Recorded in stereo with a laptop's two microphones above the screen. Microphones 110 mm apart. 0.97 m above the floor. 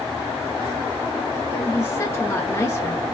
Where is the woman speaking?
25° left (ahead or behind), 1.2 m.